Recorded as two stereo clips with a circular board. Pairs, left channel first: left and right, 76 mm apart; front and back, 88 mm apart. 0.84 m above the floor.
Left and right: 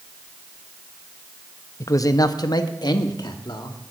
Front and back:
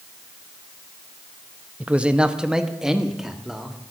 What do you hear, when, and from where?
1.8 s a man speaking: 110° left, 0.5 m; by 3.8 s 95° left, 1.5 m